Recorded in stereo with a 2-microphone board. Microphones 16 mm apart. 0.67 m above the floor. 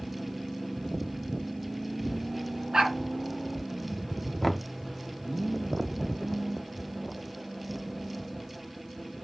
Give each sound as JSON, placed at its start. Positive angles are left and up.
{"t": 2.7, "sound": "a dog barking", "side_deg": -55, "distance_m": 2.5}
{"t": 4.4, "sound": "knocking", "side_deg": 5, "distance_m": 0.6}